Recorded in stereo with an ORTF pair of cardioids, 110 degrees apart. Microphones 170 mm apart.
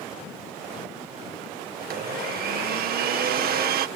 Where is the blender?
65° right.